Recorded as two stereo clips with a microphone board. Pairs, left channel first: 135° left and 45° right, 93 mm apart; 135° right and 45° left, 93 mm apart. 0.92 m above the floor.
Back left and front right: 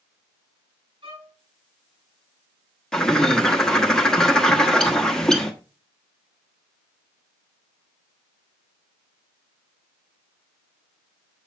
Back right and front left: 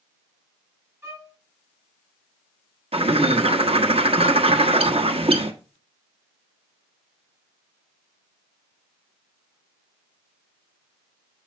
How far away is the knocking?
No knocking in this recording.